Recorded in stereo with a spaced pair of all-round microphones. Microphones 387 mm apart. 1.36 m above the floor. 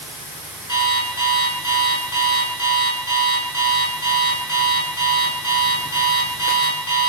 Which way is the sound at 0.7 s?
50° left (ahead or behind).